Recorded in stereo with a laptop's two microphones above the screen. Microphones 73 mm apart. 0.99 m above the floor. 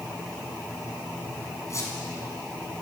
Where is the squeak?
40° left (ahead or behind), 6.5 m.